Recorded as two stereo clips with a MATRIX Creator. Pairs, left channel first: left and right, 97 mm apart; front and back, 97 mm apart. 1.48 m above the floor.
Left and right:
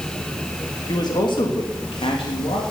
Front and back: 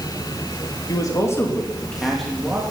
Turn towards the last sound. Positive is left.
turn(degrees=100)